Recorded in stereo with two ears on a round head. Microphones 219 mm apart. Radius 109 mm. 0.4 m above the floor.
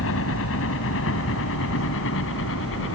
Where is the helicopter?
55° left (ahead or behind).